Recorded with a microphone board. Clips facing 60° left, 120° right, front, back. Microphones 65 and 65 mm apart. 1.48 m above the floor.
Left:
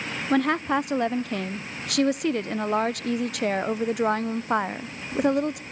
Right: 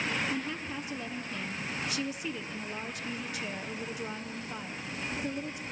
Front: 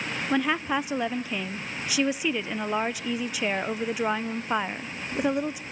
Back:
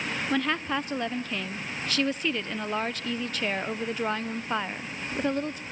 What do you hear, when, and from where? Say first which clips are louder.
0.3 s a woman speaking: left 13 dB, front 3 dB; 80° left, 0.5 m